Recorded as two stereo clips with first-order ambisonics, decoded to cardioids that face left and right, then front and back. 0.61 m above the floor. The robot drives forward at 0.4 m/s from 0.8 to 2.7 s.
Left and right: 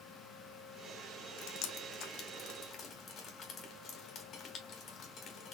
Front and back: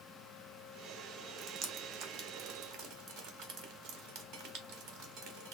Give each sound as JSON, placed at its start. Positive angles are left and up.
{"t": 1.4, "sound": "dripping", "azimuth_deg": 110, "distance_m": 0.6}